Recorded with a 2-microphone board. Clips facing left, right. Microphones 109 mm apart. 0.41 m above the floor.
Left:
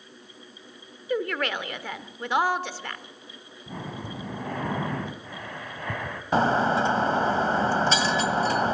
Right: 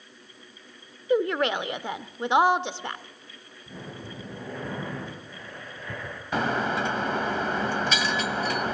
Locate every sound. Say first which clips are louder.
1.1 s a woman speaking: right 4 dB; 20° right (ahead or behind), 0.8 m
3.7 s breathing: left 4 dB; 70° left (ahead or behind), 2 m
6.3 s breaking glass: left 5 dB; 35° left (ahead or behind), 1.6 m